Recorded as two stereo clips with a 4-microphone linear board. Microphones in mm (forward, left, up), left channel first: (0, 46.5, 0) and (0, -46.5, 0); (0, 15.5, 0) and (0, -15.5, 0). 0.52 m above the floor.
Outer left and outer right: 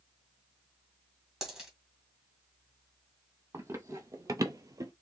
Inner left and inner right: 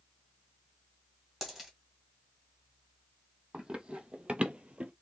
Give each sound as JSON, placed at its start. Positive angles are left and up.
{"t": 1.4, "sound": "a dropped coin", "side_deg": -5, "distance_m": 1.5}
{"t": 3.5, "sound": "running footsteps", "side_deg": -30, "distance_m": 1.0}